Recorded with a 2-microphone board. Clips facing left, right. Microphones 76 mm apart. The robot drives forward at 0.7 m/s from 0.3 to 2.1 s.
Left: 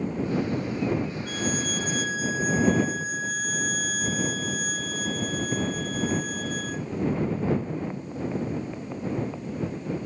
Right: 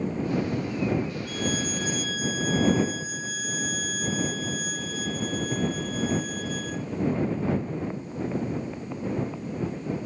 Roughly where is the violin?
Left.